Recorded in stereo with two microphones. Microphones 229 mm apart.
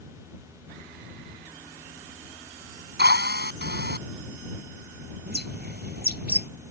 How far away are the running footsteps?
I don't hear running footsteps.